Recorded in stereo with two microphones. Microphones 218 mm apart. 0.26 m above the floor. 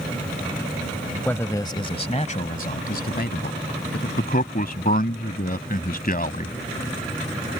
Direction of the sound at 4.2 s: 40° left (ahead or behind).